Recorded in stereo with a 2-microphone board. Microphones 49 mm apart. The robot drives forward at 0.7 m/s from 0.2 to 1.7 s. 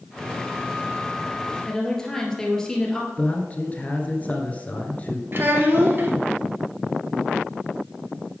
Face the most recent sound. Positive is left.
turn(degrees=-50)  # may be behind; listen again after turning